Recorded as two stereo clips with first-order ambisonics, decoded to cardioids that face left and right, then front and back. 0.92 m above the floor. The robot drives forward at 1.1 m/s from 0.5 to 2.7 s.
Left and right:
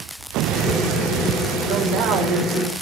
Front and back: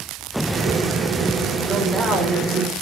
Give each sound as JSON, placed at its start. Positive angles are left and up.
{"t": 1.7, "sound": "a man speaking", "azimuth_deg": -100, "distance_m": 2.5}